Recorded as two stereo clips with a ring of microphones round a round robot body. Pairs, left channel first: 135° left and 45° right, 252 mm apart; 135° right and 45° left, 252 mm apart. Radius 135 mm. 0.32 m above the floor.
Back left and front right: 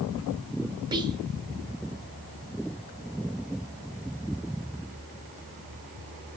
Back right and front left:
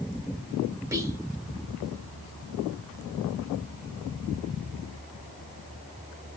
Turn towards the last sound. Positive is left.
turn(degrees=-10)